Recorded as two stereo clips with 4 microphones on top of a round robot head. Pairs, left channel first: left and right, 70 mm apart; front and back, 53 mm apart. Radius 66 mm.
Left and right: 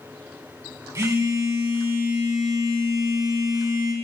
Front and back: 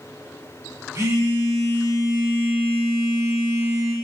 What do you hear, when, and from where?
0.9 s a phone buzzing: 135° right, 3 m